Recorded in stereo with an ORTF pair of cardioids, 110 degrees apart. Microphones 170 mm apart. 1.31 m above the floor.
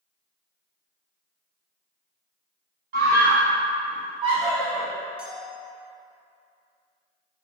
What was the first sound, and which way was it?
A scream, 70° right.